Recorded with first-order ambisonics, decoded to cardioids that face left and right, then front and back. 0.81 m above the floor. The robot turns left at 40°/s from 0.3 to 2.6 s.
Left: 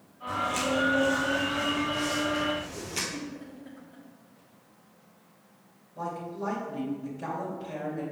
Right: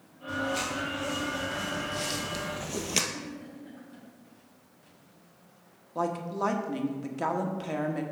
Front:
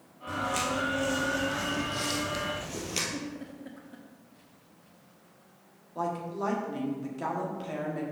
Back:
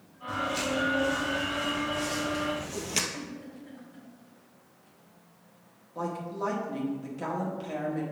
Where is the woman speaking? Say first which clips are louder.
Right 5 dB, front 1 dB; 85° right, 1.3 m.